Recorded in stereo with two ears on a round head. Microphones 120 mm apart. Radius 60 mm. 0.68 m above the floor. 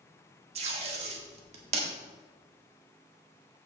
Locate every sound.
0.6 s tape being pulled: 50° right (ahead or behind), 1.7 m